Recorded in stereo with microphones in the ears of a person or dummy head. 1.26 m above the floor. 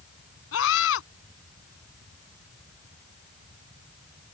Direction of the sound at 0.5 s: 80° left.